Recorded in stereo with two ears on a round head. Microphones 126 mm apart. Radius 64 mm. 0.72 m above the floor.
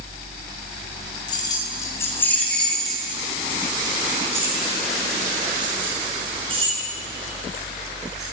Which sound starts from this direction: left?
Keys jangling, at 1.3 s.